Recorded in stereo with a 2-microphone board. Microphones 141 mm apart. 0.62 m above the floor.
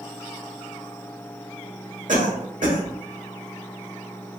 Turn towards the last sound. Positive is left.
turn(degrees=-70)  # may be behind; listen again after turning